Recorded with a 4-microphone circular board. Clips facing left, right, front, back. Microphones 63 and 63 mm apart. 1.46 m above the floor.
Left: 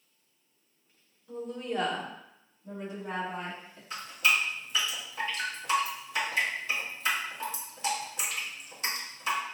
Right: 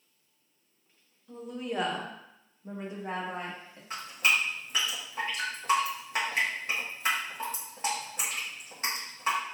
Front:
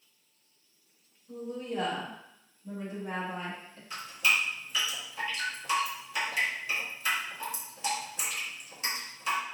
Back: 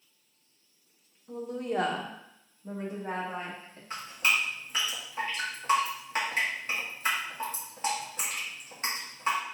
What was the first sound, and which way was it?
A woman speaking, 175° left.